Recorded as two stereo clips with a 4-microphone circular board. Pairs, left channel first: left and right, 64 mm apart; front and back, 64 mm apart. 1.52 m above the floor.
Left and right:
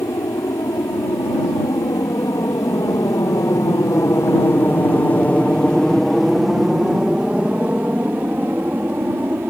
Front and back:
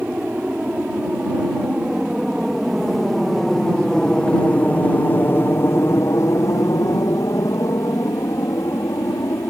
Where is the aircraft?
110° left; by 9.5 s 35° right.